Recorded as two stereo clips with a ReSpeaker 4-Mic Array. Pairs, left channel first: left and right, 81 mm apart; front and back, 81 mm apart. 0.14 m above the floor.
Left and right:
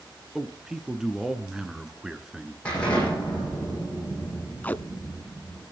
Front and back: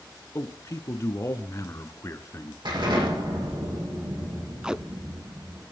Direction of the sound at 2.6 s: 165° left.